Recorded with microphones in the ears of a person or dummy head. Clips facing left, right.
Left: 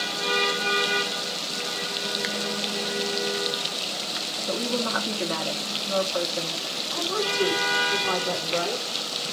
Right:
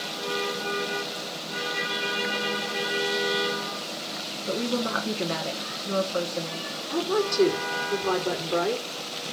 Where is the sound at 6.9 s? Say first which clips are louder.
Right 4 dB; 60° right (ahead or behind), 5.5 m.